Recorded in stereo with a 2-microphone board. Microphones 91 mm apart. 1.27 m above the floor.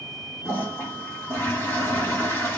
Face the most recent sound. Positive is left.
turn(degrees=25)  # may be behind; listen again after turning